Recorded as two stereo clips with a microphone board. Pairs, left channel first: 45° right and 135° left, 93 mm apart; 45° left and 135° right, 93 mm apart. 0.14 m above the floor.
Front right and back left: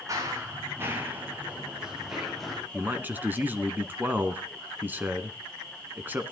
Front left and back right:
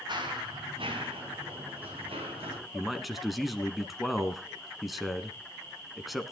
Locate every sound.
0.1 s running footsteps: 170° right, 3.5 m; by 2.6 s 130° right, 4 m
2.7 s a man speaking: 135° left, 1.1 m